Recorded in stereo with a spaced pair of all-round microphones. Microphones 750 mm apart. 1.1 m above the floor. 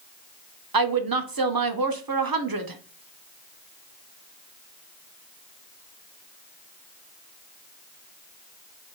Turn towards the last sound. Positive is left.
turn(degrees=-30)  # may be behind; listen again after turning